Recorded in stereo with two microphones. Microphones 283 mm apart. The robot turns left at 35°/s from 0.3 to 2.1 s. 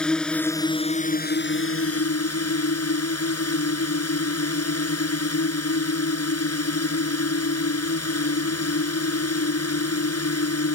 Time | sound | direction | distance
0.0 | a drone | 175° left | ?